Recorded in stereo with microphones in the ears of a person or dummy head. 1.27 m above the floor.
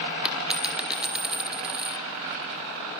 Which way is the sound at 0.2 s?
5° right (ahead or behind).